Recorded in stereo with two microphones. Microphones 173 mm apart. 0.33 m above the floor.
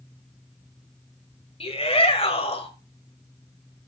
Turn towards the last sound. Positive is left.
turn(degrees=35)  # may be behind; listen again after turning